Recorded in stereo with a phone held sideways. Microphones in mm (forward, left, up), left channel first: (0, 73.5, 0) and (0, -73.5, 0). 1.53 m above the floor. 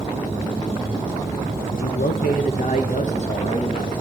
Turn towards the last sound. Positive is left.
turn(degrees=40)  # may be behind; listen again after turning